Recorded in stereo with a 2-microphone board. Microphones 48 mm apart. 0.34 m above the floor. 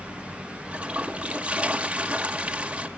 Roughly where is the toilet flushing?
Right.